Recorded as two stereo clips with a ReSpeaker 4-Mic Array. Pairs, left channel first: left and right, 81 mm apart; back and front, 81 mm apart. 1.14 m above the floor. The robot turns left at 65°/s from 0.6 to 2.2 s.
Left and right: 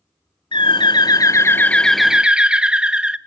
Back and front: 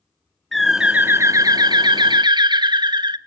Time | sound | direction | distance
0.5 | a bird | 90° left | 0.5 m